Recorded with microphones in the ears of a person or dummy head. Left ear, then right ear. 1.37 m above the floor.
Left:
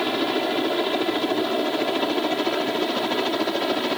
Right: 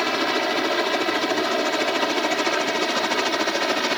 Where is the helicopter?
50° right (ahead or behind).